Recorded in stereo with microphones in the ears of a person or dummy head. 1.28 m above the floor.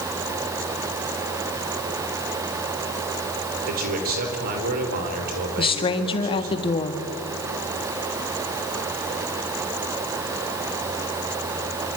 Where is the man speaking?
50° right (ahead or behind), 4.5 m.